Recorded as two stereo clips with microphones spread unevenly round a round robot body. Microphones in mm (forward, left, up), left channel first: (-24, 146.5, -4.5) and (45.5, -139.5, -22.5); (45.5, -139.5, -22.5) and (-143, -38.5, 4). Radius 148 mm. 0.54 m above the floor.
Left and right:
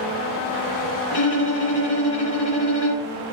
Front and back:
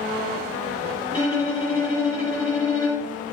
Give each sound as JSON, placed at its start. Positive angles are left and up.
{"t": 1.1, "sound": "a violin", "azimuth_deg": 50, "distance_m": 1.8}